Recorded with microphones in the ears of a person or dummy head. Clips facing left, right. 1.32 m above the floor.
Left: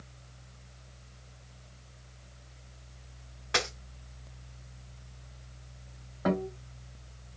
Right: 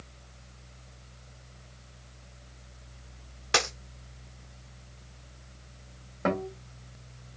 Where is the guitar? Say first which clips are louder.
Even; 40° right (ahead or behind), 2 m.